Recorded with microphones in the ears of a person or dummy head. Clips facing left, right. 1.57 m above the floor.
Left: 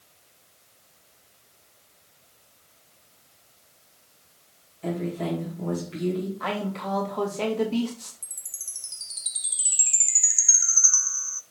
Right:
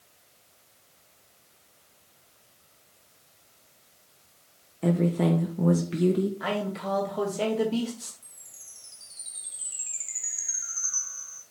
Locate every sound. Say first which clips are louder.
4.8 s a woman speaking: right 5 dB; 65° right (ahead or behind), 1.4 m
6.4 s a man speaking: even; 5° right (ahead or behind), 2 m
8.2 s a chime: left 1 dB; 65° left (ahead or behind), 1.0 m